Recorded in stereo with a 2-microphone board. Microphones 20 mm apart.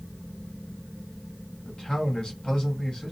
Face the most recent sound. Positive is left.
turn(degrees=45)  # may be behind; listen again after turning